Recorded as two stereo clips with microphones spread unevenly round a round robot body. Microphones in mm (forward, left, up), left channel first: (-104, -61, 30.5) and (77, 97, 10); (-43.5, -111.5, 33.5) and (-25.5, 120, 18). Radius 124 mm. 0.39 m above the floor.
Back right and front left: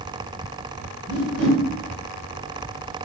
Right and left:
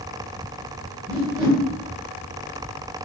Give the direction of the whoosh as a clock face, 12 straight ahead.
11 o'clock.